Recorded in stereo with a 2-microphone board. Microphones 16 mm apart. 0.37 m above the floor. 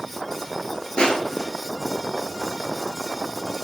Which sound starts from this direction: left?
Crushing, at 1.0 s.